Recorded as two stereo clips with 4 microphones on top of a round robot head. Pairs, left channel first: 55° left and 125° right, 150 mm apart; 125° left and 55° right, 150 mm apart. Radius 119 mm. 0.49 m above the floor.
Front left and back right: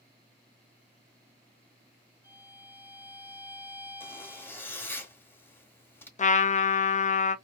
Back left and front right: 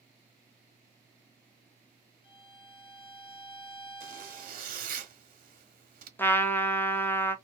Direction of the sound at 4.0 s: 20° right.